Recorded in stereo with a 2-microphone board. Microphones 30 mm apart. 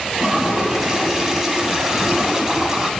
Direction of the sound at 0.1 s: 20° right (ahead or behind).